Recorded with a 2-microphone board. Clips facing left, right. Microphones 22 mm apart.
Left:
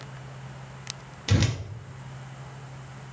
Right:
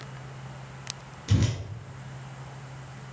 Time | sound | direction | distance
1.3 | a whoosh | 40° left (ahead or behind) | 0.5 m